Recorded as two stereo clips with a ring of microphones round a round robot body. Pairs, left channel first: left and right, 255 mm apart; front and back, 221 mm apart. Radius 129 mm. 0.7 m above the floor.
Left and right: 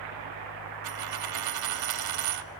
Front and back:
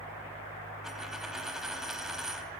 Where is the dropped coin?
90° right, 0.8 m.